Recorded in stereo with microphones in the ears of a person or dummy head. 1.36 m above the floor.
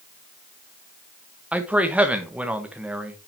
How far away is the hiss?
I don't hear a hiss.